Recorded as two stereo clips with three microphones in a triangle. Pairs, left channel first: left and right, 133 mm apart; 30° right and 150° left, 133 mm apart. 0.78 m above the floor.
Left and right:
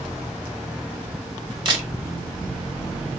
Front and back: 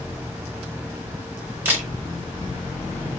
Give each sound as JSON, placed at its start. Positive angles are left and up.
{"t": 1.6, "sound": "a camera shutter", "azimuth_deg": -135, "distance_m": 1.7}